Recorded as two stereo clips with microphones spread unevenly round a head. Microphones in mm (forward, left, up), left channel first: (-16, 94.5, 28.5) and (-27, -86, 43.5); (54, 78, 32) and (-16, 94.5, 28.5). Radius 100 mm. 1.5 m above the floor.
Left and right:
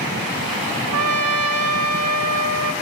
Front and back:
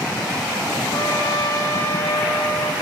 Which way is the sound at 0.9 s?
90° right.